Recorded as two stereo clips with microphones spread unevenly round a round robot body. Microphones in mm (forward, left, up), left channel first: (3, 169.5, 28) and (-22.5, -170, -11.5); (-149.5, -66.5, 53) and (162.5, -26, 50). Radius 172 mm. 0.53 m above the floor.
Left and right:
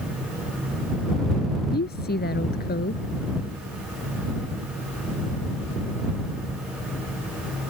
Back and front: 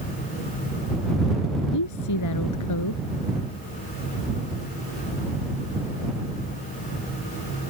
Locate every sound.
1.7 s a woman speaking: 150° left